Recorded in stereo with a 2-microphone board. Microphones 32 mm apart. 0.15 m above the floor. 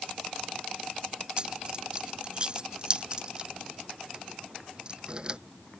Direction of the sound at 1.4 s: 30° right (ahead or behind).